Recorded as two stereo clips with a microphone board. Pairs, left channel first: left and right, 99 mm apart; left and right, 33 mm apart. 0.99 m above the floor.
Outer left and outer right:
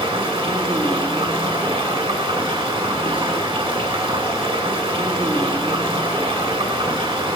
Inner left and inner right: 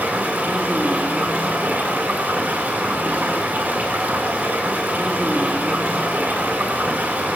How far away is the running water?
About 3 m.